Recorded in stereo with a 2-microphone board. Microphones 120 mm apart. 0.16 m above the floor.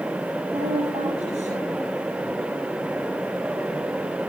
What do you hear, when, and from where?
0.5 s a woman speaking: 75° right (ahead or behind), 9 m